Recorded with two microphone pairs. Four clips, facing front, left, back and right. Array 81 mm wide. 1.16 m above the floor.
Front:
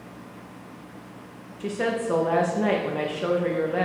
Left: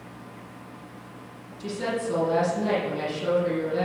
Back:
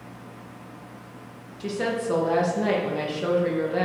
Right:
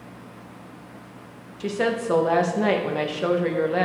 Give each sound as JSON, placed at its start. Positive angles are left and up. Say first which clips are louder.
{"t": 1.6, "sound": "a woman speaking", "louder": "right 4 dB, front 1 dB", "azimuth_deg": -80, "distance_m": 1.5}